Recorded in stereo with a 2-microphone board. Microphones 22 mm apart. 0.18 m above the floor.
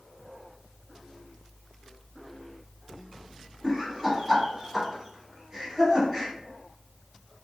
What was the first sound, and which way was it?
Laughter, 20° right (ahead or behind).